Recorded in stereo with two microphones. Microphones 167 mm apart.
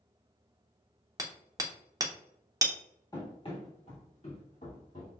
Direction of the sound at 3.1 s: 25° left (ahead or behind).